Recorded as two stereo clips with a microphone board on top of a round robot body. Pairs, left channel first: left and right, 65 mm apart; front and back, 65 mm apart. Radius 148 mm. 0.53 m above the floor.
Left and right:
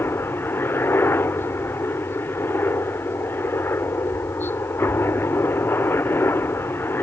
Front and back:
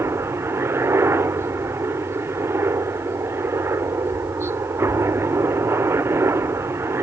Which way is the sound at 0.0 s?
140° left.